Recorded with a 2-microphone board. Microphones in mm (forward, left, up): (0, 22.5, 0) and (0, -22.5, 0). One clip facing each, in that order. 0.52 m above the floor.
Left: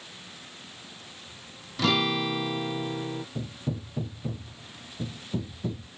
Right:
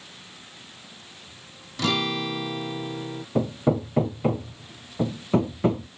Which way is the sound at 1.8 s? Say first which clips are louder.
Even; 5° left (ahead or behind).